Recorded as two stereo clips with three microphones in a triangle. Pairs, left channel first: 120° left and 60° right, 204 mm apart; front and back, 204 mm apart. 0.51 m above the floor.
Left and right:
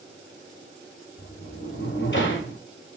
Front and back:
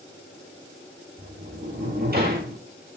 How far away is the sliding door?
About 2 m.